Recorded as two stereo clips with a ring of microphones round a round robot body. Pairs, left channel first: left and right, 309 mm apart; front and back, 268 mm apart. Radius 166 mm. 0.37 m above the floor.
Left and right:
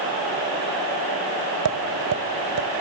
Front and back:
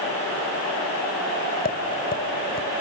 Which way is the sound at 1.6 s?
55° right.